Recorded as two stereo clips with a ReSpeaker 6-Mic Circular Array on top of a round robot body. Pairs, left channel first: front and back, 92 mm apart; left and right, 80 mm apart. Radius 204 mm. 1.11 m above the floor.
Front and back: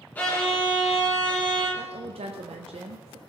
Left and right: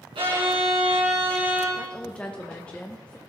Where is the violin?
75° right, 3 m.